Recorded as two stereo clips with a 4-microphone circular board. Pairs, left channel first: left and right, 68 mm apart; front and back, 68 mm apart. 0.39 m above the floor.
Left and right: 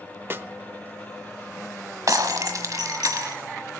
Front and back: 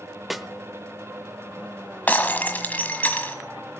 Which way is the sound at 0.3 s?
90° right.